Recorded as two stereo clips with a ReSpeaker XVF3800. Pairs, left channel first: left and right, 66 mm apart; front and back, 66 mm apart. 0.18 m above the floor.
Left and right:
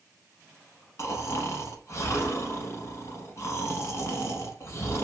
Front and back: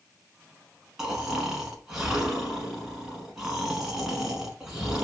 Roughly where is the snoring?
Left.